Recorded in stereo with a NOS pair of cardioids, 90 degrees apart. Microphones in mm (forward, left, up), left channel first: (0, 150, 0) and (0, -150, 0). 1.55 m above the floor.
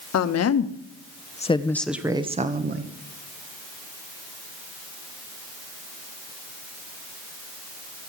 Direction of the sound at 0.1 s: 60° left.